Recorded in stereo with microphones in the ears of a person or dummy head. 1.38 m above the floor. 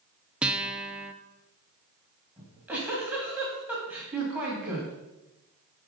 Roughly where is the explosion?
No explosion in this recording.